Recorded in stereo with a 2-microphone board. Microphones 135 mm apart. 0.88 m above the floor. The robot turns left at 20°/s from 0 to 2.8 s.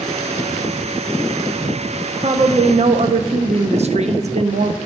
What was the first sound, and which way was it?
A woman speaking, 45° right (ahead or behind).